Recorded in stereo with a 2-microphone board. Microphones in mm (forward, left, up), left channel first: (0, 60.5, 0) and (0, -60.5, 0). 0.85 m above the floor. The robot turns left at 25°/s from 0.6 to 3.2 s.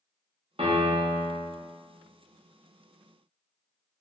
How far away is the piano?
About 0.6 m.